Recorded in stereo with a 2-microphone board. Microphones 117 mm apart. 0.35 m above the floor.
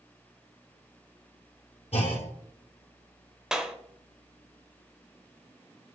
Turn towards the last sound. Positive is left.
turn(degrees=-5)  # may be behind; listen again after turning